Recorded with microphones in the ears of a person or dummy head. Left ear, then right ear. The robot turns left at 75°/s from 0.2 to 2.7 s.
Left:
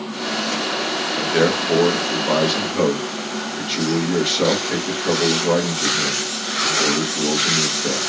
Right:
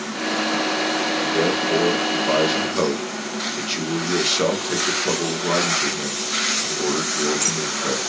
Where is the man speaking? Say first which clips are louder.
Left 5 dB; 90° left, 0.9 m; by 8.0 s 25° right, 0.9 m.